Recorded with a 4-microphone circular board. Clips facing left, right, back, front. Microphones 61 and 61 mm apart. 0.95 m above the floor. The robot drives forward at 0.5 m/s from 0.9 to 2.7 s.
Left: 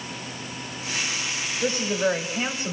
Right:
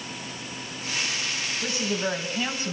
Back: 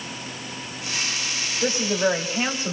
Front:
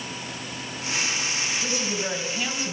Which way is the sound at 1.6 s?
140° left.